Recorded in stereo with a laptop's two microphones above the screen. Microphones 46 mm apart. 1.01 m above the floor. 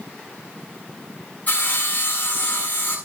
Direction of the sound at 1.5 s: 35° left (ahead or behind).